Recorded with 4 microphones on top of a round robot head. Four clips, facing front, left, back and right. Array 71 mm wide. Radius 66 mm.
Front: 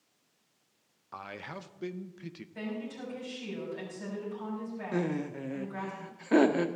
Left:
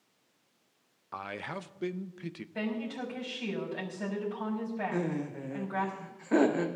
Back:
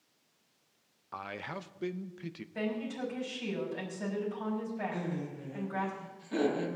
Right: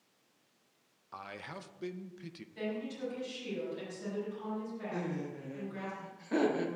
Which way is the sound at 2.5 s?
110° left.